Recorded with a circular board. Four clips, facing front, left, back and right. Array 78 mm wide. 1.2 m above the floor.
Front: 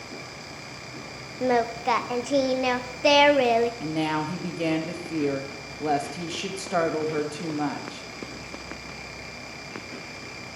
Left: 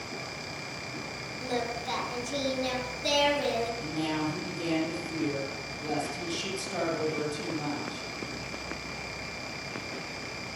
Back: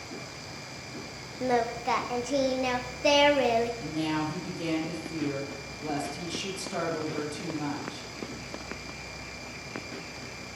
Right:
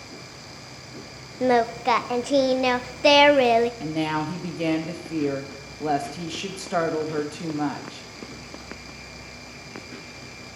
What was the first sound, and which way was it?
Singing, 70° right.